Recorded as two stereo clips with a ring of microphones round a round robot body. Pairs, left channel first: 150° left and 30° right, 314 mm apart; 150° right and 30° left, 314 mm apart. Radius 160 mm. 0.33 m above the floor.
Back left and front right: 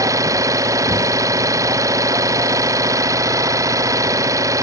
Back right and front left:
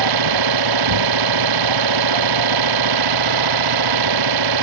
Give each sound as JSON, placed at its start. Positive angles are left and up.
{"t": 0.0, "sound": "an engine running", "azimuth_deg": 50}